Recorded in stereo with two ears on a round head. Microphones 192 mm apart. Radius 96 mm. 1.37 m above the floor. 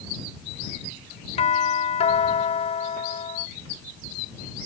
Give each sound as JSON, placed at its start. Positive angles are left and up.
{"t": 1.4, "sound": "a doorbell", "side_deg": 30}